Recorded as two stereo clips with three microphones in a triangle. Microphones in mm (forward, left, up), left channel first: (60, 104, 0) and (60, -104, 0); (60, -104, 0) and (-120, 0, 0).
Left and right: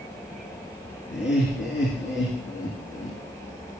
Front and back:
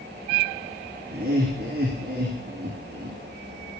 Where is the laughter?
110° left, 3.5 m.